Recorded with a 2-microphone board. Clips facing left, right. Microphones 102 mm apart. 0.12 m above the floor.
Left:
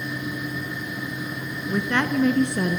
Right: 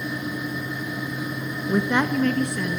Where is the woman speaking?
30° right (ahead or behind), 1.4 m; by 2.8 s 45° left (ahead or behind), 1.5 m.